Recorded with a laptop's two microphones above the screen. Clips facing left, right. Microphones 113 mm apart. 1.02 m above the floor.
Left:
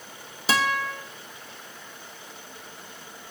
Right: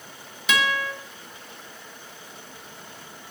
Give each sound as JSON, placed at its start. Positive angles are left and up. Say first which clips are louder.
{"t": 0.5, "sound": "a guitar", "louder": "even", "side_deg": 35, "distance_m": 0.8}